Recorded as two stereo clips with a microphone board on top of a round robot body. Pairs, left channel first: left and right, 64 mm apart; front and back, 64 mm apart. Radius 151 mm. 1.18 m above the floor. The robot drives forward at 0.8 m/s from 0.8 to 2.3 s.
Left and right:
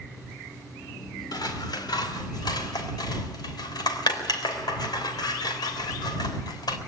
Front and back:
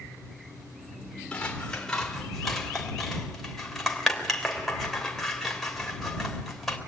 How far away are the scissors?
About 3.5 m.